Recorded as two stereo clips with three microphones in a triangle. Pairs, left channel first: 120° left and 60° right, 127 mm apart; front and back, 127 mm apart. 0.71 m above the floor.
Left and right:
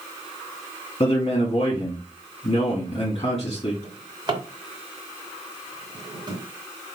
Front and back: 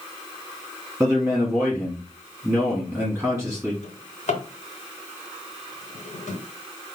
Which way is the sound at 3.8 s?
5° right.